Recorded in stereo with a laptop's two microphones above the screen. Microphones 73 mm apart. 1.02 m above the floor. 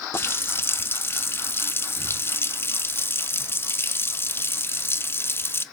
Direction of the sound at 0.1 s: 35° left (ahead or behind).